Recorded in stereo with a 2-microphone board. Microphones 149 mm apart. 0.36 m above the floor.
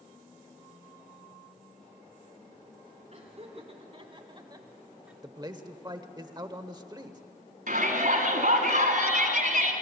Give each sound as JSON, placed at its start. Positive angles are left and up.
{"t": 3.1, "sound": "laughter", "side_deg": -50, "distance_m": 4.0}
{"t": 5.2, "sound": "a man speaking", "side_deg": -30, "distance_m": 1.1}
{"t": 7.7, "sound": "a shout", "side_deg": -70, "distance_m": 3.5}